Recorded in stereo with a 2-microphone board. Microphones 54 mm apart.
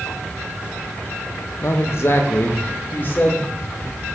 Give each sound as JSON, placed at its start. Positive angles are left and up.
{"t": 1.6, "sound": "a man speaking", "side_deg": 55, "distance_m": 0.8}